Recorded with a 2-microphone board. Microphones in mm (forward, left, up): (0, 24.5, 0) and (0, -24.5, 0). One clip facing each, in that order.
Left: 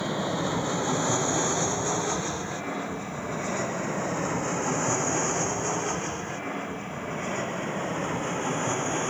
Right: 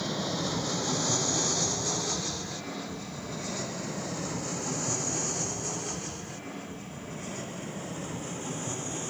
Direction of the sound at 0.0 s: 20° left (ahead or behind).